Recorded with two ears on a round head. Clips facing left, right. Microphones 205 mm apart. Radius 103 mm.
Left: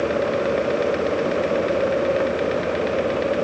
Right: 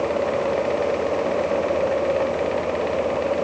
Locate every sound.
Only background noise.